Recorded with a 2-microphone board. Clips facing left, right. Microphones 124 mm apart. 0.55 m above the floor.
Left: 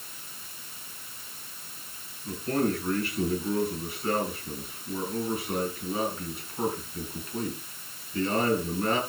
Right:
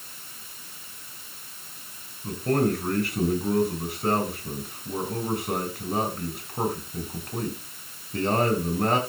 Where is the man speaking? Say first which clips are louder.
Right 3 dB; 75° right (ahead or behind), 6 m.